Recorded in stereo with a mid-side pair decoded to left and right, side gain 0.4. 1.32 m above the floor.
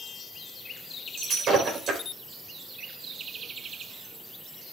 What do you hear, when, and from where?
1.2 s breaking glass: 65° right, 4 m